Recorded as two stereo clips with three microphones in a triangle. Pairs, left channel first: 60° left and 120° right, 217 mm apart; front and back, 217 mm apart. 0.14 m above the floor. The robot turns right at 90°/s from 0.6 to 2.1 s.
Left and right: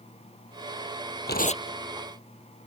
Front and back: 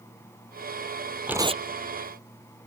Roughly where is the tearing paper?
Left.